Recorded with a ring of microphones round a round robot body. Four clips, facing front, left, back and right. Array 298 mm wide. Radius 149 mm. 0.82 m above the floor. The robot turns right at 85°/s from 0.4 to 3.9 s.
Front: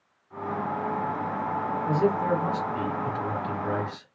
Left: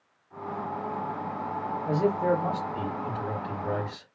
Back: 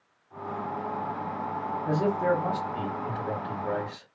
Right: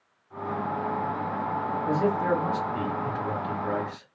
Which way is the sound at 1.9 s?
145° right.